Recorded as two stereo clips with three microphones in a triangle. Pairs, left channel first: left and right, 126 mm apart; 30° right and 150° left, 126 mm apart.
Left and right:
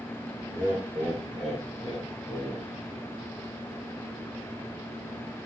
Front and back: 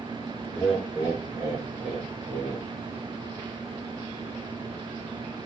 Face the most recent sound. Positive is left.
turn(degrees=155)